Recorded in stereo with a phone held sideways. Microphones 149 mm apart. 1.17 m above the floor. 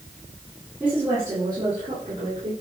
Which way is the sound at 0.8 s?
10° right (ahead or behind).